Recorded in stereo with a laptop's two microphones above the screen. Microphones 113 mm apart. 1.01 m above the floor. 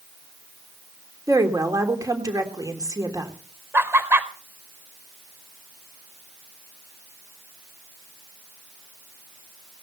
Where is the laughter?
20° right (ahead or behind), 4 m.